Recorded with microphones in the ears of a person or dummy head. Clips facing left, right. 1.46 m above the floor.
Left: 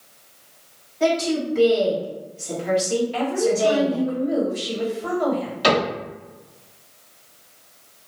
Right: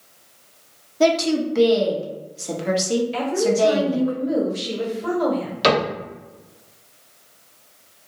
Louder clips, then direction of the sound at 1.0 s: Right 3 dB; 65° right (ahead or behind).